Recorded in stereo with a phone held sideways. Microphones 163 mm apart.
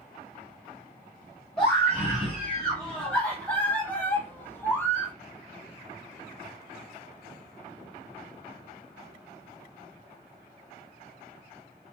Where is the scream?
5° left (ahead or behind), 1.6 m; by 5.1 s 10° left (ahead or behind), 0.7 m.